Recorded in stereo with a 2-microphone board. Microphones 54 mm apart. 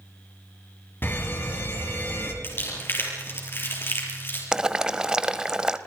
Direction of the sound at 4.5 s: 15° right (ahead or behind).